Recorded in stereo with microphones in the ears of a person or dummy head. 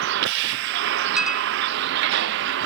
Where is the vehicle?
70° right (ahead or behind).